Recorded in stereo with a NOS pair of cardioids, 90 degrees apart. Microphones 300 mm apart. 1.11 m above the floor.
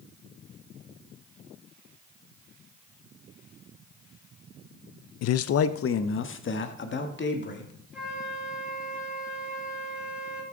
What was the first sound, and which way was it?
A man speaking, 60° left.